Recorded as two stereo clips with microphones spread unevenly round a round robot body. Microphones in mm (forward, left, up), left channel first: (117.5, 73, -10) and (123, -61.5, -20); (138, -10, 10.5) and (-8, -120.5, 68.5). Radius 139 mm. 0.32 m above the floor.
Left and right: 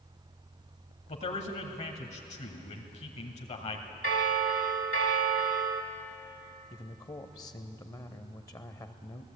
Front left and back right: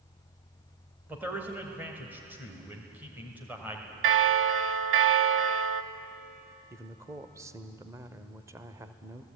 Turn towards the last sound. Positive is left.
turn(degrees=120)